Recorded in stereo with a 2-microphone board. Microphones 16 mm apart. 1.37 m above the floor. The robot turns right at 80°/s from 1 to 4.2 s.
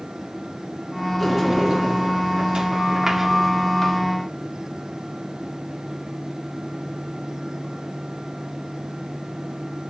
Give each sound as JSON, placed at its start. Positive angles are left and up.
{"t": 1.2, "sound": "a sliding door", "azimuth_deg": 180, "distance_m": 2.0}